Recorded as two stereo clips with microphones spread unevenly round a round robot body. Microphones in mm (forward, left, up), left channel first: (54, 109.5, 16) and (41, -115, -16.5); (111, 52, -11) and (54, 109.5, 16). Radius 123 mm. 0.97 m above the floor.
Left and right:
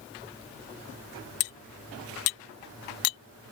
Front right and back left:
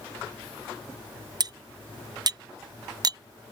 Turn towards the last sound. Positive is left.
turn(degrees=105)